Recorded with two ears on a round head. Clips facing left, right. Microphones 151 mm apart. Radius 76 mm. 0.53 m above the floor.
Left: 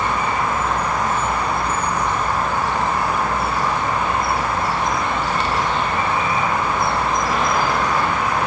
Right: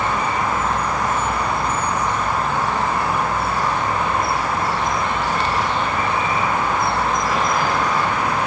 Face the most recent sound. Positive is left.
No sound to turn to.